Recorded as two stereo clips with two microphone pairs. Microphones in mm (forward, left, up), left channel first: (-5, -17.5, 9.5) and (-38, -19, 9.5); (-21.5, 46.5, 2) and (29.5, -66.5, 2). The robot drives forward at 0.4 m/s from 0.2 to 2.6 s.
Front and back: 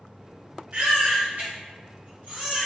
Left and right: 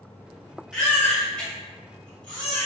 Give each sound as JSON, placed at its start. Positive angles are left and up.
{"t": 0.7, "sound": "a baby crying", "azimuth_deg": -160, "distance_m": 1.1}